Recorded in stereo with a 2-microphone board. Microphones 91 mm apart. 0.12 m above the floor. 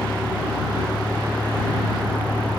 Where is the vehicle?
15° left (ahead or behind); by 2.6 s 20° left (ahead or behind).